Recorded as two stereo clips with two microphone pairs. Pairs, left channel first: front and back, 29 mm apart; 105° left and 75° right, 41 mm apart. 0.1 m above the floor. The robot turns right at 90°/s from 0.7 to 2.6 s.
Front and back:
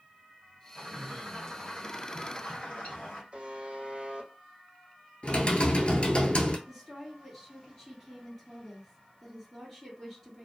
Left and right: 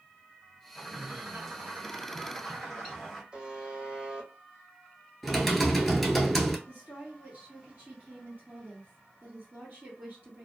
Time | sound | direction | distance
0.8 | a bird | 165° right | 1.5 m
3.3 | a buzzer | 140° right | 0.9 m
5.2 | typing on a keyboard | 15° left | 0.6 m
6.7 | a woman speaking | 90° right | 1.5 m